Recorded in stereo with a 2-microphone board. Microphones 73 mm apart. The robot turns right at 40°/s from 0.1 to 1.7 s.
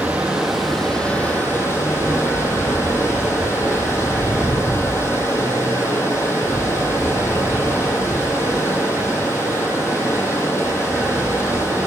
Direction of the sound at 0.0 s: 20° right.